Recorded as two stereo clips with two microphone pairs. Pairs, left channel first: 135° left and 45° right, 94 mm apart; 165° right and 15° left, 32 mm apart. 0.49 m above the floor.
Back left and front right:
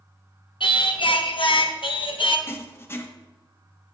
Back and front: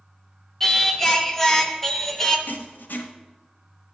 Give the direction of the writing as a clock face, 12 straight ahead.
5 o'clock.